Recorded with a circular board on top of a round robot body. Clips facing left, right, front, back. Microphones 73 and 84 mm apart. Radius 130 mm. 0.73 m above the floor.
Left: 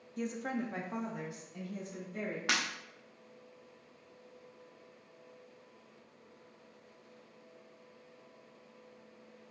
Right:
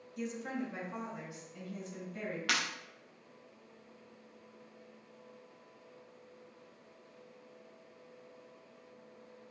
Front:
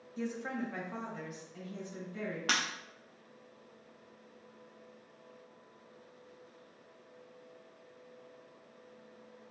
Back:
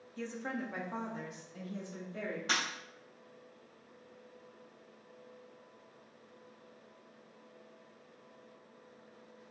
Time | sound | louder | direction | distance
0.2 | a woman speaking | left 2 dB, front 2 dB | 60° left | 0.6 m
2.5 | breaking glass | even, front 1 dB | 25° left | 0.8 m